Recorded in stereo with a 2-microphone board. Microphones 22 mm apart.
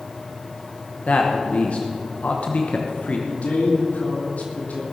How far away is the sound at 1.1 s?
About 1.1 m.